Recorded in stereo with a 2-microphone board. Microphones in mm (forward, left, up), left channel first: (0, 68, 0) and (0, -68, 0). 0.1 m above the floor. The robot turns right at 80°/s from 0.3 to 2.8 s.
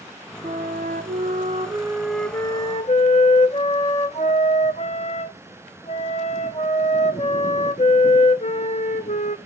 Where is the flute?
135° right, 0.9 m; by 9.4 s 50° left, 0.9 m.